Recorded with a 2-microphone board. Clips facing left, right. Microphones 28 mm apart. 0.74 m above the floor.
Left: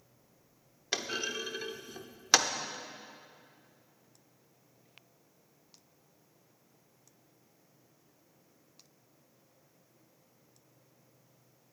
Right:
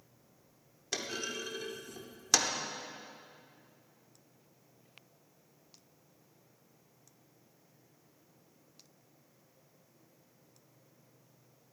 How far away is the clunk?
About 0.8 m.